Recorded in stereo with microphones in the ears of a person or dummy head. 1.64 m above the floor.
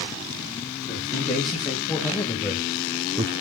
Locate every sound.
0.9 s a man speaking: 30° left (ahead or behind), 3 m; by 3.3 s 20° right (ahead or behind), 0.5 m